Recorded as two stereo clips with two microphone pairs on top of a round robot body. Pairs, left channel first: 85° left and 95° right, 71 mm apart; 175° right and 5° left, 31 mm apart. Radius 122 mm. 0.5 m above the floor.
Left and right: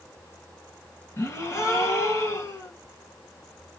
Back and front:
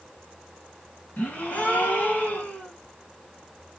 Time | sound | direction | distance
1.2 | a gasp | 145° left | 1.4 m